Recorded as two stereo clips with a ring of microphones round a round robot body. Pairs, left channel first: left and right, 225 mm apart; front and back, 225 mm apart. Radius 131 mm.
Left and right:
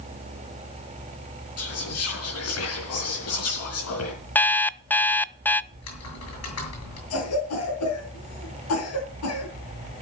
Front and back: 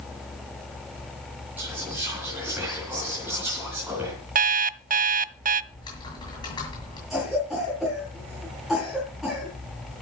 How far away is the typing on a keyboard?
About 6.5 m.